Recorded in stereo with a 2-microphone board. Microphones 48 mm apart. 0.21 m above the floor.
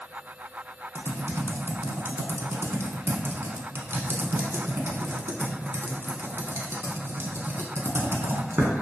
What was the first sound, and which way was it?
Typing on a keyboard, 65° right (ahead or behind).